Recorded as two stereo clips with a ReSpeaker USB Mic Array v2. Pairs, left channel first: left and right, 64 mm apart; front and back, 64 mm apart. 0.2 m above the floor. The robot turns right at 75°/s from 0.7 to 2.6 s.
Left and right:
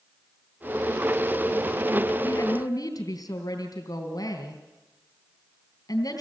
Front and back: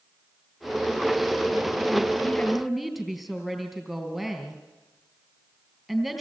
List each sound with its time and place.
2.2 s a woman speaking: 65° left, 3.5 m; by 6.2 s 95° left, 3.5 m